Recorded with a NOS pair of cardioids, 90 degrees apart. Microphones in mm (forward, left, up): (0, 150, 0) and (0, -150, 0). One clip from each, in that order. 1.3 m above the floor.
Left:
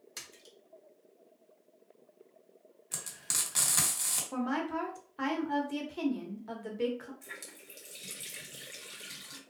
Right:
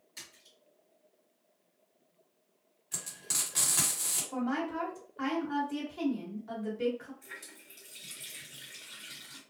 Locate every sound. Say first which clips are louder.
0.2 s a splash: left 2 dB; 55° left, 1.1 m
2.9 s frying: even; 30° left, 1.5 m
4.3 s a woman speaking: left 1 dB; 25° left, 1.2 m
7.2 s a running tap: left 1 dB; 45° left, 1.4 m